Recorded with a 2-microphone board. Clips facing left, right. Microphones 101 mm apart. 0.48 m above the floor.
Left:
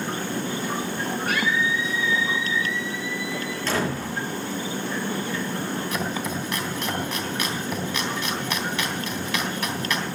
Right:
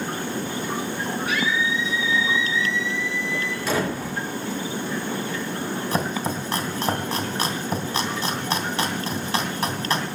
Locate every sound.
1.3 s a scream: 50° left (ahead or behind), 5.5 m; by 3.6 s 40° left (ahead or behind), 5 m
3.7 s a door slam: 10° right (ahead or behind), 9.5 m
5.9 s chopping: 35° right (ahead or behind), 3 m